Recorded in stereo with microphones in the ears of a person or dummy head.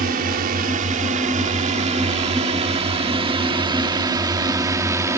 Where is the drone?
50° right (ahead or behind); by 5.2 s 15° right (ahead or behind).